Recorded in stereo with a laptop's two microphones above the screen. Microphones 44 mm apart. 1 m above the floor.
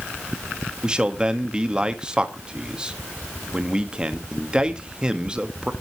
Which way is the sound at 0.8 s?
20° right (ahead or behind).